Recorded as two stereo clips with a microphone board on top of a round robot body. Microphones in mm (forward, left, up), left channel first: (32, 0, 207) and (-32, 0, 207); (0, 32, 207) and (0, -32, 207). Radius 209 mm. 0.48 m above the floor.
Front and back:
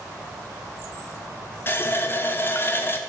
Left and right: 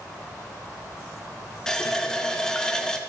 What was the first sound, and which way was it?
A running tap, 15° left.